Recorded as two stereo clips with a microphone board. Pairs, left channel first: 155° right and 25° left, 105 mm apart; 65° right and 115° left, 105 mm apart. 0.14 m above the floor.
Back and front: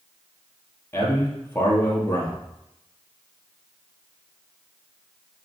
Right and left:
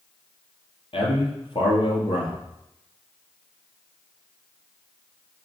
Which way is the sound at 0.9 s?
90° right.